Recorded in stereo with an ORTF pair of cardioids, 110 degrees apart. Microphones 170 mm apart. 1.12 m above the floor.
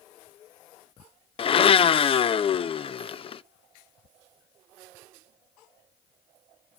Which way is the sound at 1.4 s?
35° left.